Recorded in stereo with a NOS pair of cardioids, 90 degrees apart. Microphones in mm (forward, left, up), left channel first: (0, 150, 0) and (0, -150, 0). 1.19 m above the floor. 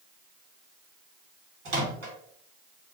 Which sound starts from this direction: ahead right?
A microwave, at 1.6 s.